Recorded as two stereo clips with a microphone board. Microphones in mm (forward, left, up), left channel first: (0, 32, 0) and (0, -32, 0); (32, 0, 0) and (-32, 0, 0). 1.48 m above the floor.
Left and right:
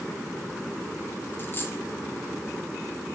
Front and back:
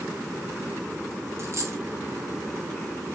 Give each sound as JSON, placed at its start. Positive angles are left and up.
{"t": 1.4, "sound": "a dropped coin", "azimuth_deg": 140, "distance_m": 2.0}